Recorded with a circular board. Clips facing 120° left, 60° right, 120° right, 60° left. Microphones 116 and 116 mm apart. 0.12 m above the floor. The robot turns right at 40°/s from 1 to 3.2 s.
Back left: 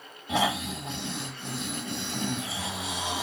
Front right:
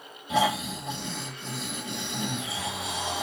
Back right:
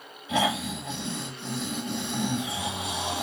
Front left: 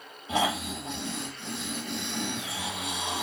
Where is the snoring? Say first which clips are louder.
Front right 2 dB, back right 2 dB; 115° left, 3 m; by 3.2 s 160° right, 3 m.